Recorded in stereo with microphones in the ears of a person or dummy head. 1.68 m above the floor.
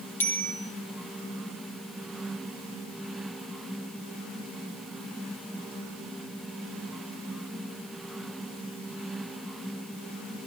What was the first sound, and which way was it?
A bicycle bell, 10° left (ahead or behind).